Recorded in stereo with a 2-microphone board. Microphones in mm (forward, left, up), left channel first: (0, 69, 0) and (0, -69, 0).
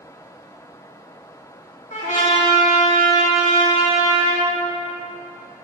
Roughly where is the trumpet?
Left.